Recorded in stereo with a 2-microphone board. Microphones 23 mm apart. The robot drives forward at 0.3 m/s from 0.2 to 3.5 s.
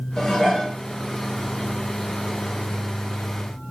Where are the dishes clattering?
25° left (ahead or behind), 1.6 m.